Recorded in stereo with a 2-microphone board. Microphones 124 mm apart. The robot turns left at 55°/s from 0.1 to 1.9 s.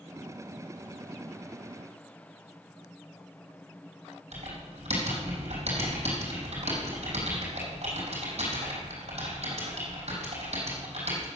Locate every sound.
4.3 s typing on a keyboard: 60° right (ahead or behind), 4 m